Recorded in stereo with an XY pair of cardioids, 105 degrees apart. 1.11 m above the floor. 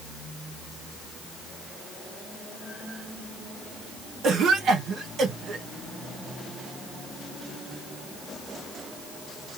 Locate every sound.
4.2 s a cough: 65° right, 1.1 m